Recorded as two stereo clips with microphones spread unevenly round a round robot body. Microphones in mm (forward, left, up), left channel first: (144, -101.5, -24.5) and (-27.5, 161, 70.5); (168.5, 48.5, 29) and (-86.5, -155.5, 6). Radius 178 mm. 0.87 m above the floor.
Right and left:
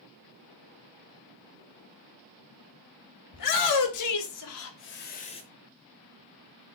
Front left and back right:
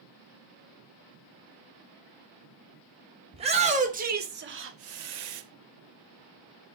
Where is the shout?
70° right, 3.5 m; by 5.4 s 125° right, 1.7 m.